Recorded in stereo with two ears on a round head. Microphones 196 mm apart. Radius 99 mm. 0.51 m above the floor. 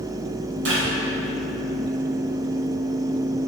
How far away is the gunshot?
About 2 m.